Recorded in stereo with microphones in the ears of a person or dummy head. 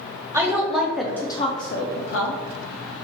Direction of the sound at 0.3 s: 25° right (ahead or behind).